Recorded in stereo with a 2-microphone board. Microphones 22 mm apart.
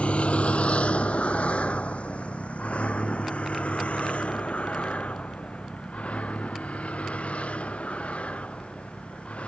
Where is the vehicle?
75° left (ahead or behind); by 9.5 s 85° left.